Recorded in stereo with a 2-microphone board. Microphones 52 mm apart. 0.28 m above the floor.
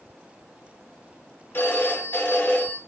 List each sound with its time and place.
1.5 s a phone ringing: 40° left (ahead or behind), 1.4 m